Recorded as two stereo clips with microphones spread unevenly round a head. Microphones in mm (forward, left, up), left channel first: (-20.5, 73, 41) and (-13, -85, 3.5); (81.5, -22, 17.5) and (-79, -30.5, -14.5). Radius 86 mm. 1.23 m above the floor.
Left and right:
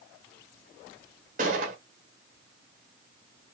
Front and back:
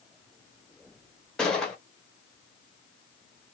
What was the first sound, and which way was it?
A gunshot, 60° right.